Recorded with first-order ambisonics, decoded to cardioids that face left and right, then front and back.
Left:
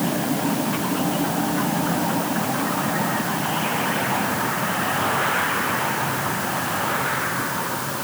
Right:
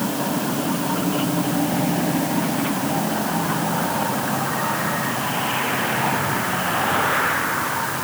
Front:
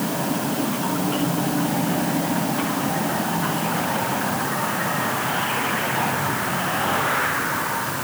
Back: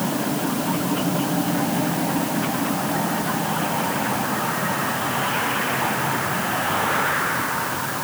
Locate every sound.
Only background noise.